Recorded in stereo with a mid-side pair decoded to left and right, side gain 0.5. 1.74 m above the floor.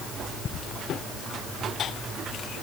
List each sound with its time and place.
Only background noise.